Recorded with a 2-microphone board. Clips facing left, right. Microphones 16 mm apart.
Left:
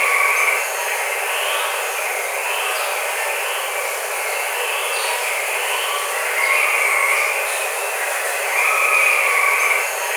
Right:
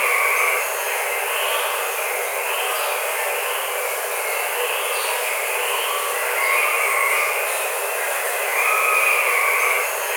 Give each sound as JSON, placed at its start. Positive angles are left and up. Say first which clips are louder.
{"t": 0.0, "sound": "running water", "louder": "left 2 dB", "side_deg": 15, "distance_m": 1.0}